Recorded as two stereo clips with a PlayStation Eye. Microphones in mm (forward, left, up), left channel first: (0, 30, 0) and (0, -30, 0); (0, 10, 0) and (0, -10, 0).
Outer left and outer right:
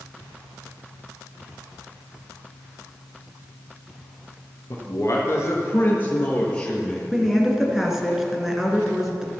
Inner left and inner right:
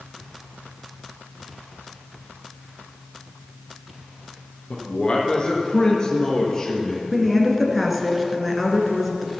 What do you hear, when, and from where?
4.7 s a man speaking: 50° left (ahead or behind), 2 m; by 7.0 s 15° left (ahead or behind), 3 m
7.1 s a woman speaking: 5° right (ahead or behind), 1.9 m